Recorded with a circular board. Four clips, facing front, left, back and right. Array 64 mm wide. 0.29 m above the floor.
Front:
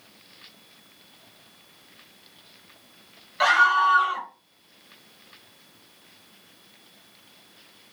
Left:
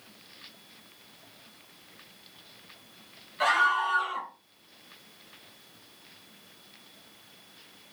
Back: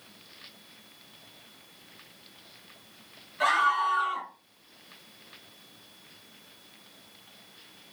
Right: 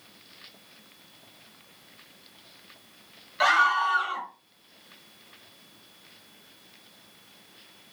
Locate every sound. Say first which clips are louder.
3.4 s a scream: right 3 dB, front 6 dB; 40° right, 1.1 m